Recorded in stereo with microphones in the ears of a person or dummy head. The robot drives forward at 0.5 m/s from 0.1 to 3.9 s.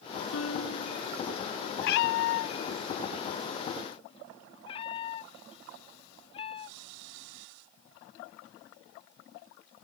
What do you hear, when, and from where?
0.3 s a piano: 75° left (ahead or behind)
1.8 s a cat meowing: 65° left (ahead or behind); by 7.5 s 35° left (ahead or behind)